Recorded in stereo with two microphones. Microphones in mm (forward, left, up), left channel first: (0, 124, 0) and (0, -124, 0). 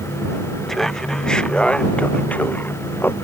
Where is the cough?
I don't hear a cough.